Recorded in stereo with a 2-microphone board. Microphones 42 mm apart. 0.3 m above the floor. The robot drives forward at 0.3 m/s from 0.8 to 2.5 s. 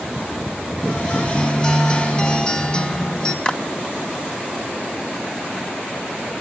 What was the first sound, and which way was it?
A guitar, 20° left (ahead or behind).